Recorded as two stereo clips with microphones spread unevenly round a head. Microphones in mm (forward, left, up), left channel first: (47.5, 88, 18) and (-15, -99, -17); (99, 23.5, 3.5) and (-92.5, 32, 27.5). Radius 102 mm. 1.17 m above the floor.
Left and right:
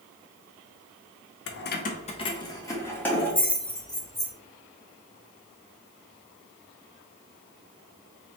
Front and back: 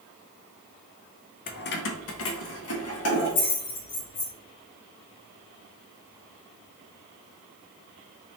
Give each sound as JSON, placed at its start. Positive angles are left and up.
{"t": 1.5, "sound": "keys jangling", "azimuth_deg": 45, "distance_m": 0.6}